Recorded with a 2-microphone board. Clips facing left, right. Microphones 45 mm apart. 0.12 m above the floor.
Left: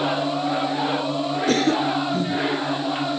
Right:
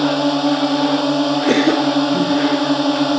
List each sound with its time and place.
0.0 s a drone: 70° right (ahead or behind)
1.5 s a cough: 35° right (ahead or behind)